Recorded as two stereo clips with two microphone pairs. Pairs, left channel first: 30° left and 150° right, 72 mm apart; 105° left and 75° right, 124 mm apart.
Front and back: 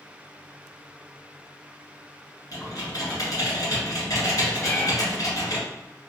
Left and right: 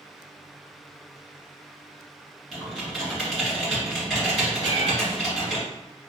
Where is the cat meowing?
100° left, 0.6 m.